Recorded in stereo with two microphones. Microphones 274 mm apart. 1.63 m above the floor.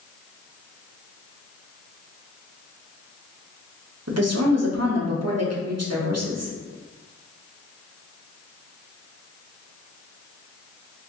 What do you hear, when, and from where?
4.1 s a woman speaking: 65° right (ahead or behind), 0.9 m